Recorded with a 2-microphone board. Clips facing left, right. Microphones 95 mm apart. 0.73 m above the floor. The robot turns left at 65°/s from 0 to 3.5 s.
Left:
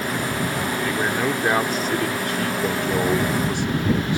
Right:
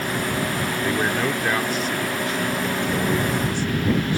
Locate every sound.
0.8 s a man speaking: 165° right; by 4.2 s 20° left